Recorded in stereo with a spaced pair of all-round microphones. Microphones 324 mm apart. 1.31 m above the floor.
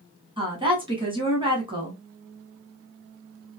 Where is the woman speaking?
15° right (ahead or behind), 1.1 m.